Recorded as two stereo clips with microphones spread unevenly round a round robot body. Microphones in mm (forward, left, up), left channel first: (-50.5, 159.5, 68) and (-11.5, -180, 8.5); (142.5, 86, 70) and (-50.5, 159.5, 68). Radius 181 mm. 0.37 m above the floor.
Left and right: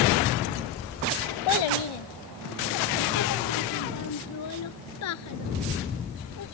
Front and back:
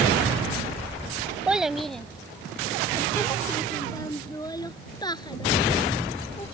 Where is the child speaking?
75° left; by 6.5 s 45° left.